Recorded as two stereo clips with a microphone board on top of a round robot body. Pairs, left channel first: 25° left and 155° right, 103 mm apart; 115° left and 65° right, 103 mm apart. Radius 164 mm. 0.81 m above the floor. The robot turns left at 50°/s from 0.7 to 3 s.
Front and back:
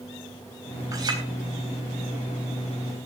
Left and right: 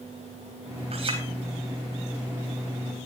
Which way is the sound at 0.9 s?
95° right.